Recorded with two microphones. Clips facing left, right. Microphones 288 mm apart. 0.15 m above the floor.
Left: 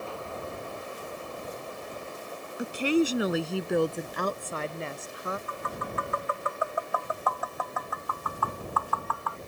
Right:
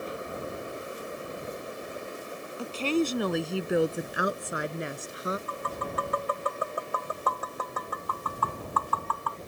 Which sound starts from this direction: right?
Tapping, at 5.5 s.